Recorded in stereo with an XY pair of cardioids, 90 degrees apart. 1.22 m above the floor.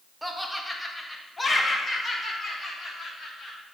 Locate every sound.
0.2 s laughter: 5° right, 1.3 m; by 3.6 s 50° left, 3 m